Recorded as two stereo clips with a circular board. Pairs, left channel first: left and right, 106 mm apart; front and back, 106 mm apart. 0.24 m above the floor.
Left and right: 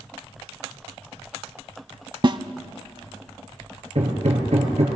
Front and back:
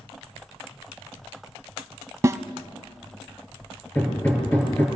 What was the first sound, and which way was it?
A snare drum, 125° right.